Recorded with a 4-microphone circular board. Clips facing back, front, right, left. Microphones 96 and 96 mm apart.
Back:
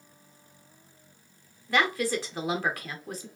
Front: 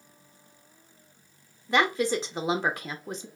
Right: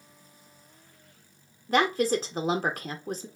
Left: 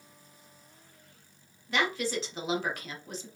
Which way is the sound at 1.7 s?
60° right.